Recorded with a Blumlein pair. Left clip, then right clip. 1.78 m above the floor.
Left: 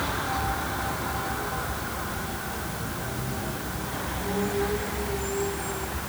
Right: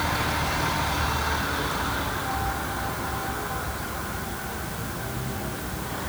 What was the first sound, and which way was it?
Only background noise.